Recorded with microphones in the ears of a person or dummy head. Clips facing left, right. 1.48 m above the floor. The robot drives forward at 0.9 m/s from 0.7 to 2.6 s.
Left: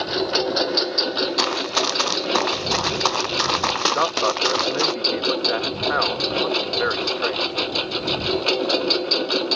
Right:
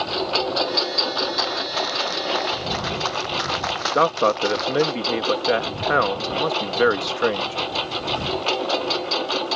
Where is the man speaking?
45° right (ahead or behind).